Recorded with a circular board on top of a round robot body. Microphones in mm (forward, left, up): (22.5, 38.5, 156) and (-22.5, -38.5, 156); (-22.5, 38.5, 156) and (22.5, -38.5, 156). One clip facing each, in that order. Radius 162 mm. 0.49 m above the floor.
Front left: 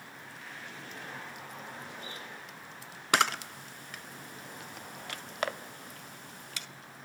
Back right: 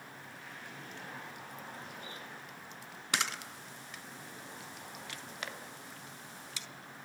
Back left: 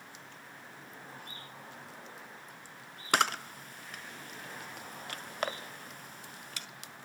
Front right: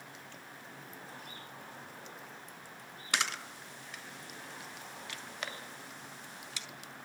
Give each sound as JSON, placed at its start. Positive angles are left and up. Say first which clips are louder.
{"t": 3.1, "sound": "a camera shutter", "louder": "front left 9 dB, back left 7 dB", "azimuth_deg": 85, "distance_m": 0.7}